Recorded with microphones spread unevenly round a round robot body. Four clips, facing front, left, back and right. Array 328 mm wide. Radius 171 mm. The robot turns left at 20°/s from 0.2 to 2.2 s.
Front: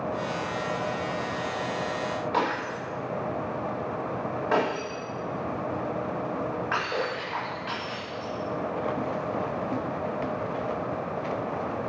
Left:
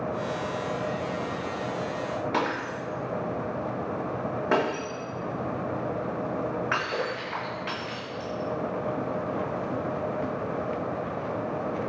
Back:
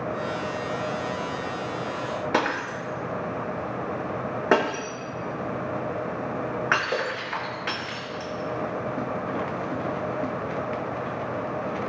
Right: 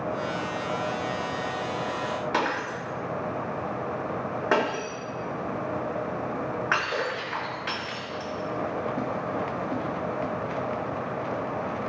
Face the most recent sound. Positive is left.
turn(degrees=-175)